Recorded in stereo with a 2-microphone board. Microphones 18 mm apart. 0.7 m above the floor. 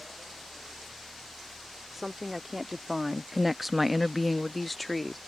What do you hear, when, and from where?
1.9 s a woman speaking: 10° right (ahead or behind); by 5.2 s 5° left (ahead or behind)